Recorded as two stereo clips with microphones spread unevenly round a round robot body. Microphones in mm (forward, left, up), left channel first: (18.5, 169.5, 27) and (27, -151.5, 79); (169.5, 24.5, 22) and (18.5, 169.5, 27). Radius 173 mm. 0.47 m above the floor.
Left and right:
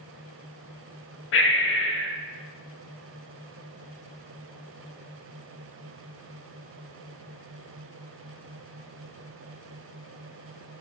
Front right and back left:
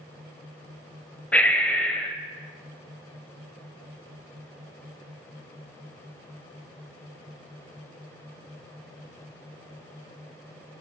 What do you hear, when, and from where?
1.3 s breathing: 40° left, 0.9 m